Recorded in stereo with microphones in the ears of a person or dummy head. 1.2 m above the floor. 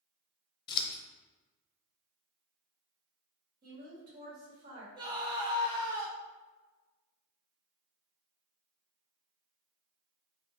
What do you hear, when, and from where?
0.7 s scissors: 25° left (ahead or behind), 0.6 m
3.6 s a woman speaking: 50° right (ahead or behind), 2.0 m
5.0 s a scream: 20° right (ahead or behind), 0.7 m